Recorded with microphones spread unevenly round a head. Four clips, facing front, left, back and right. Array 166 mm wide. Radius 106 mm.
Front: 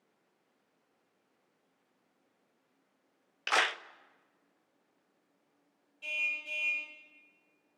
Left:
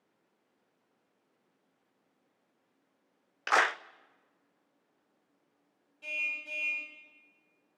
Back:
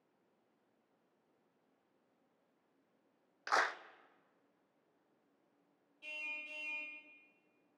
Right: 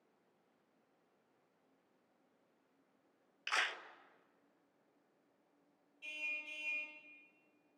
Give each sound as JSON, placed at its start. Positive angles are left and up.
{"t": 3.5, "sound": "a clap", "azimuth_deg": 65, "distance_m": 0.6}
{"t": 6.0, "sound": "a car horn", "azimuth_deg": 60, "distance_m": 5.0}